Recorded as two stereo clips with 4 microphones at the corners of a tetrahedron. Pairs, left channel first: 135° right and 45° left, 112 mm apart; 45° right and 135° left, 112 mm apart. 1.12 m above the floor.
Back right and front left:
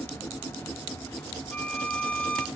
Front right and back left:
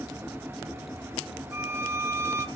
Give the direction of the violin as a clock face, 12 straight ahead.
7 o'clock.